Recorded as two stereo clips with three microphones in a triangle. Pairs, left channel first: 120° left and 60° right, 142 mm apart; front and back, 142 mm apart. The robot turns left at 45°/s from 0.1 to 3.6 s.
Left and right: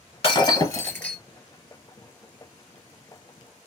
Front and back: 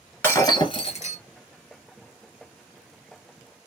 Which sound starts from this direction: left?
Breaking glass, at 0.2 s.